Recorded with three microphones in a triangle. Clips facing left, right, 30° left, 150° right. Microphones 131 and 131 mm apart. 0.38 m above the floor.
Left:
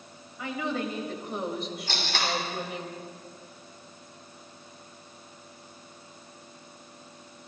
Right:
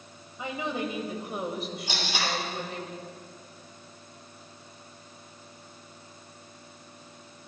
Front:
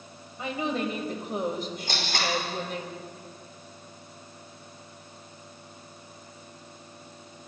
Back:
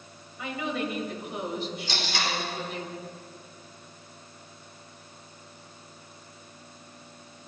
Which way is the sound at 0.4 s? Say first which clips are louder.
Left 1 dB, front 2 dB; 25° right.